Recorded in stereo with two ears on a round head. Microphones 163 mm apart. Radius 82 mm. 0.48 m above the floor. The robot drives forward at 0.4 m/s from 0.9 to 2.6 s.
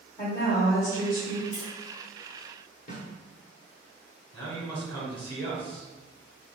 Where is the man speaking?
30° left (ahead or behind), 1.4 m.